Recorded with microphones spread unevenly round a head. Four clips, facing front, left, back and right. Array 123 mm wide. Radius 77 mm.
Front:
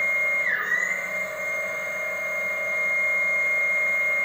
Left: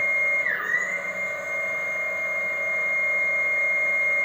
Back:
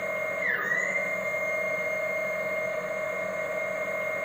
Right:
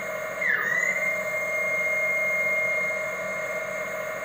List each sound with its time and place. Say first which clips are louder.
0.0 s a machine running: left 2 dB, front 2 dB; 140° right, 0.7 m